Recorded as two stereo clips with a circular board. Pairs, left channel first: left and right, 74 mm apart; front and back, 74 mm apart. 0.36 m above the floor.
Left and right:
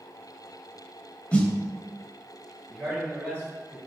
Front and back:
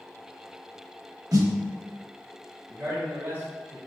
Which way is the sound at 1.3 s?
160° left.